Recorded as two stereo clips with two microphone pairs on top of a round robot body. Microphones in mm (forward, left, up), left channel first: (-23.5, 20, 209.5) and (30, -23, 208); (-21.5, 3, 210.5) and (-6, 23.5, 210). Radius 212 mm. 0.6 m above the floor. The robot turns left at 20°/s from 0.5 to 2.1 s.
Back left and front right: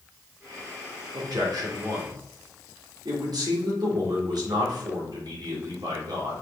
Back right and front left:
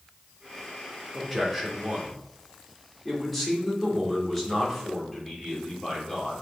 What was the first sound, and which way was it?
A man speaking, 25° right.